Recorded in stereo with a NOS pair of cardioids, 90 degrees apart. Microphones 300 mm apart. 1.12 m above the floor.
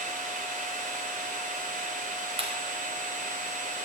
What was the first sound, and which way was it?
A machine running, 25° right.